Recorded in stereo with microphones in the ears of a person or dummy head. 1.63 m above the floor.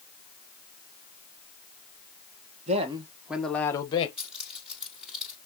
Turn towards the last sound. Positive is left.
turn(degrees=-5)  # may be behind; listen again after turning